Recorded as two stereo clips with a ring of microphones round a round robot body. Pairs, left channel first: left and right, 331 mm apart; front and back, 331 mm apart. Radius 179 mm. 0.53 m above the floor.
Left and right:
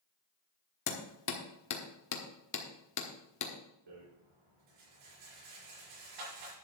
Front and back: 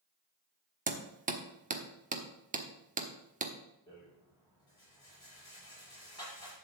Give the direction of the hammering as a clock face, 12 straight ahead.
8 o'clock.